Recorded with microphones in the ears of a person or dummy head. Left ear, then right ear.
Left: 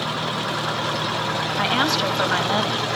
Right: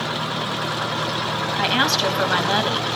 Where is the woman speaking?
Centre (ahead or behind), 2.5 m.